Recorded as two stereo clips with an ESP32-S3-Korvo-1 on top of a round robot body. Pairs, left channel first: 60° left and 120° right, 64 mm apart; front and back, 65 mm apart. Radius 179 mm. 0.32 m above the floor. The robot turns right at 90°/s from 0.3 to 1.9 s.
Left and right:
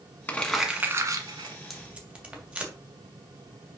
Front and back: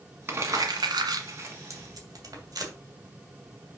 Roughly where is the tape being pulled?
Behind left.